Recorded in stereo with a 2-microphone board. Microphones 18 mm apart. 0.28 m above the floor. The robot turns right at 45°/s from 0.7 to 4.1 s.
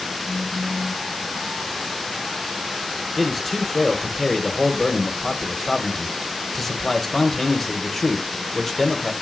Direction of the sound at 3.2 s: 5° left (ahead or behind).